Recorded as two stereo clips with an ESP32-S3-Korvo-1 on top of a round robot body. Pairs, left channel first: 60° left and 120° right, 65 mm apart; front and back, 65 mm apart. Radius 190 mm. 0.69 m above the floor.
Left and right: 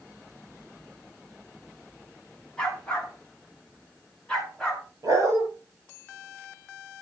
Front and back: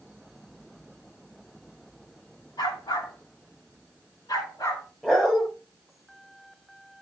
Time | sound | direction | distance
2.6 | a dog barking | 20° right | 3.5 m
5.0 | a dog barking | 80° right | 6.5 m